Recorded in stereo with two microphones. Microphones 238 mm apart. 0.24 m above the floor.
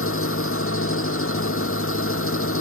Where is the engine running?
65° left (ahead or behind).